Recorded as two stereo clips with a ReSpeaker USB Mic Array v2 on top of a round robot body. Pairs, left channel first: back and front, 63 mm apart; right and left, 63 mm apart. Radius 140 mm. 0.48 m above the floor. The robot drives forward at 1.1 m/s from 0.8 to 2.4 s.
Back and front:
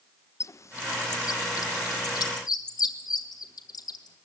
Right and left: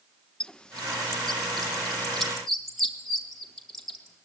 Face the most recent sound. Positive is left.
turn(degrees=180)